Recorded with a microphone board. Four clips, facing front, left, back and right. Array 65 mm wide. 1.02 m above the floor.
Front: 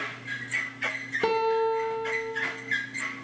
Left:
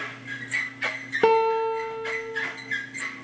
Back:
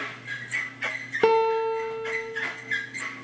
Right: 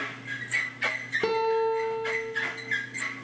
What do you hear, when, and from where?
1.2 s a guitar: 140° left, 0.7 m